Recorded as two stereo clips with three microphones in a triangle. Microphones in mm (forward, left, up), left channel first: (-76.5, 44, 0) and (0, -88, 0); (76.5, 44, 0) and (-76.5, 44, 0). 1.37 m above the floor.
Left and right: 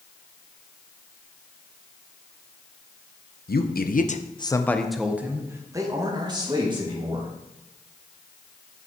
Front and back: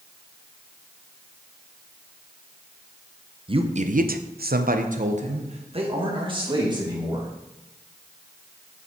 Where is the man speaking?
125° left, 0.9 m; by 7.3 s 115° right, 3 m.